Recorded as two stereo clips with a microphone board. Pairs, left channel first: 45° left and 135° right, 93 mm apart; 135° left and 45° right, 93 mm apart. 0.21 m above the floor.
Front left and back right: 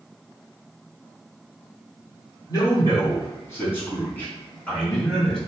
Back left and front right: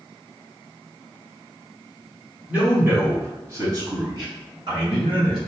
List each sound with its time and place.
2.5 s a man speaking: 25° left, 1.6 m; by 5.4 s 40° right, 2.5 m